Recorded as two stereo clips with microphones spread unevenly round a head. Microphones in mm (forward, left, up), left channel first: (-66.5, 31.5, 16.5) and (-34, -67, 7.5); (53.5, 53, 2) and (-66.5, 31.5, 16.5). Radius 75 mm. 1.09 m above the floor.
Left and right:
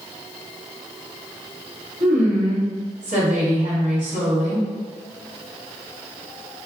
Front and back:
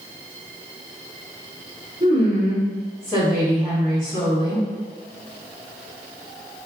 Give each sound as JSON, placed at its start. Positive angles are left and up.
{"t": 2.0, "sound": "a woman speaking", "azimuth_deg": -75, "distance_m": 1.9}